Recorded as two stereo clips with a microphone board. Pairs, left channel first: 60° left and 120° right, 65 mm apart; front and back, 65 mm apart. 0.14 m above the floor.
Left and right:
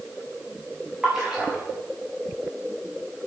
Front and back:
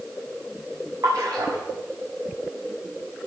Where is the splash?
155° left, 5 m.